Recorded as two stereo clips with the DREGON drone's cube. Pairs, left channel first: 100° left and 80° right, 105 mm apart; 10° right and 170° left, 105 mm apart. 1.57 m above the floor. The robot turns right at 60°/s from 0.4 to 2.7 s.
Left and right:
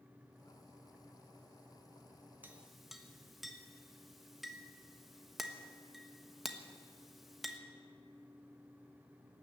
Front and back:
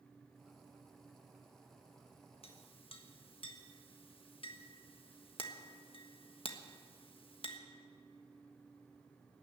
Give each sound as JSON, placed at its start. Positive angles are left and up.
{"t": 2.4, "sound": "a clink", "azimuth_deg": -5, "distance_m": 1.3}